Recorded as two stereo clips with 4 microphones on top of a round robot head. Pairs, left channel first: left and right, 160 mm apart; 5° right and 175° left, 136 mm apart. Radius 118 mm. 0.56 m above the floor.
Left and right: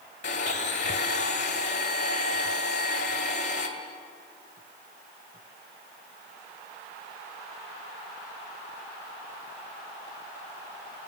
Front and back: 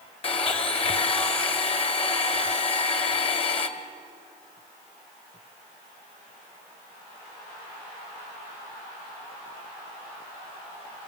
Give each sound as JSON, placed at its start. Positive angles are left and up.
{"t": 0.2, "sound": "a blender", "azimuth_deg": 40, "distance_m": 1.9}